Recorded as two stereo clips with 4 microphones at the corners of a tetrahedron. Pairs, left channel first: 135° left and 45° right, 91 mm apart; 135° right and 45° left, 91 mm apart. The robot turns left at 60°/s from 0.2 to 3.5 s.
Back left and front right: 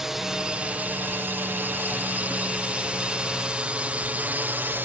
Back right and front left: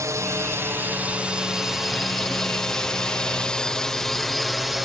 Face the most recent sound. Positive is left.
turn(degrees=-40)